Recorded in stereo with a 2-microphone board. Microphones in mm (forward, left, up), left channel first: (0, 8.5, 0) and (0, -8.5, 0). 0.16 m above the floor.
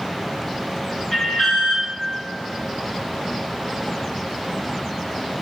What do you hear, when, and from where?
1.1 s an alarm: 20° left (ahead or behind), 1.8 m